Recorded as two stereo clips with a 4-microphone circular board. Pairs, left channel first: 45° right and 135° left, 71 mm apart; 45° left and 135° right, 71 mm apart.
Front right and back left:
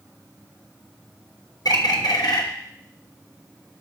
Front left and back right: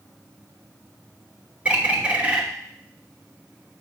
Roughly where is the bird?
Ahead right.